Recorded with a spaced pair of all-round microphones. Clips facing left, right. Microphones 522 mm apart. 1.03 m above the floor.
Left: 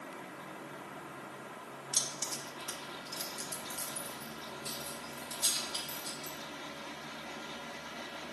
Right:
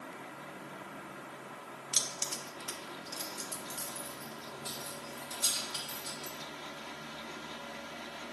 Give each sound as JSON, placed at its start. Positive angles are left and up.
{"t": 1.9, "sound": "keys jangling", "side_deg": -80, "distance_m": 0.7}